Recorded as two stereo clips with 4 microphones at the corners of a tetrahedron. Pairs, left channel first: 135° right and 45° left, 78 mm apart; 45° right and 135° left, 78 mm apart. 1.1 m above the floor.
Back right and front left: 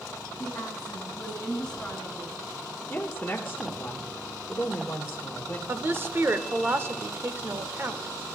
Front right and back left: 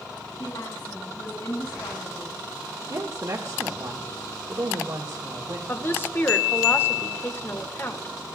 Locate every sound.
0.4 s a woman speaking: 55° right, 6 m
2.9 s a woman speaking: 155° left, 1.4 m
5.7 s a woman speaking: straight ahead, 1.0 m